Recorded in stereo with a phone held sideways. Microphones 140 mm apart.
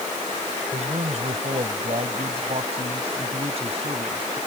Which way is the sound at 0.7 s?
55° right (ahead or behind).